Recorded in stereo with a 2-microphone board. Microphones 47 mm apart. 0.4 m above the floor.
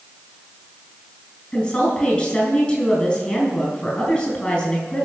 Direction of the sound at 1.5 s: 25° left (ahead or behind).